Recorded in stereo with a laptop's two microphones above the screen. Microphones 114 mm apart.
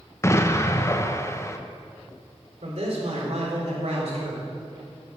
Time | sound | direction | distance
0.2 | an explosion | 25° left (ahead or behind) | 0.6 m
2.6 | a man speaking | 70° right (ahead or behind) | 2.5 m